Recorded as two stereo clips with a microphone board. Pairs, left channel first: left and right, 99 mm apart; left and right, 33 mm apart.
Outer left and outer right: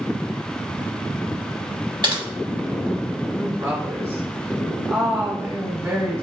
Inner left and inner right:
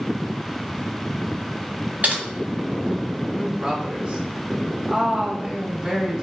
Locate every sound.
2.0 s typing on a keyboard: 50° right (ahead or behind), 1.0 m
3.3 s a woman speaking: 30° right (ahead or behind), 0.9 m